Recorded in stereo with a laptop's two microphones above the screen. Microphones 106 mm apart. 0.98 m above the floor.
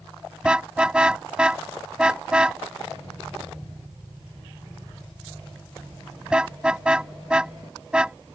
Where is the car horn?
10° right (ahead or behind).